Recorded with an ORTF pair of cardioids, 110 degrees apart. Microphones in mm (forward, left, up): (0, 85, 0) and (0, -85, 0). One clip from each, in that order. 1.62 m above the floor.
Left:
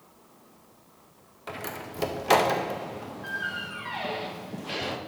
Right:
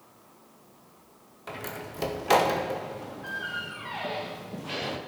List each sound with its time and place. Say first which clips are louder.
1.5 s a door slam: left 1 dB; 10° left, 1.6 m